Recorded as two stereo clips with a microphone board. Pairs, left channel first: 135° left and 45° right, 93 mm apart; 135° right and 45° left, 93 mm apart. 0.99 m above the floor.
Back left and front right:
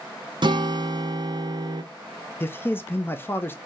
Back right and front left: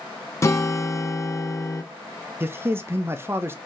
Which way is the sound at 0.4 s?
75° right.